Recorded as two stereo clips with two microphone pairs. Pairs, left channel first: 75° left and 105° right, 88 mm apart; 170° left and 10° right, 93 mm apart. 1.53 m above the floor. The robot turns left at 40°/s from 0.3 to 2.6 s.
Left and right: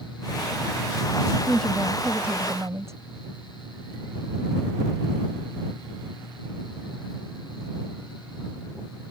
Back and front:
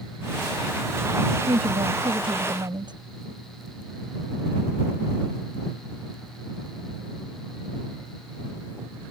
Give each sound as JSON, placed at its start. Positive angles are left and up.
{"t": 1.5, "sound": "a woman speaking", "azimuth_deg": 0}